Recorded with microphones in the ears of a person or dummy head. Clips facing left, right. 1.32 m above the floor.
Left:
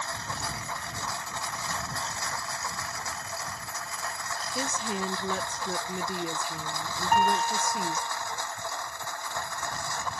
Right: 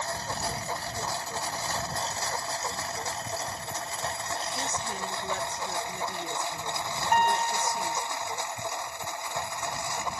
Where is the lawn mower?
30° right (ahead or behind); by 10.2 s 15° right (ahead or behind).